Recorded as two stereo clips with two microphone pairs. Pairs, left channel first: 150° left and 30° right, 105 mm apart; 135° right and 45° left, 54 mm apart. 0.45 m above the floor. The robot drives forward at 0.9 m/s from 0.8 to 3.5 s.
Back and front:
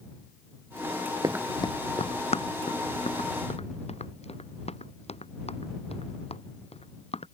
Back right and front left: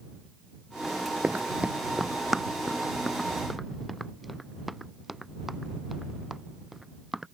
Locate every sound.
1.2 s running footsteps: straight ahead; by 7.2 s 130° left